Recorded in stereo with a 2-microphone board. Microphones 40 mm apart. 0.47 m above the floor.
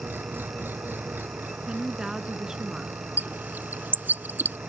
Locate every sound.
0.0 s an engine running: 60° right (ahead or behind)
1.7 s a woman speaking: 15° right (ahead or behind)
3.2 s a bird: 60° right (ahead or behind)